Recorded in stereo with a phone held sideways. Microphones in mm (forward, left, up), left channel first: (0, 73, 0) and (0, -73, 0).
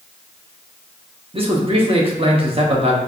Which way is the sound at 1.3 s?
40° right (ahead or behind).